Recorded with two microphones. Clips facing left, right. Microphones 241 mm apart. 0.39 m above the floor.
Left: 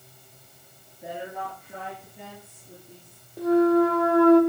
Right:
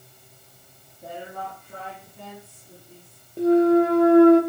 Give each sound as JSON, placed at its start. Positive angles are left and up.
{"t": 1.0, "sound": "a woman speaking", "side_deg": 15, "distance_m": 8.5}
{"t": 3.4, "sound": "a clunk", "side_deg": -25, "distance_m": 1.8}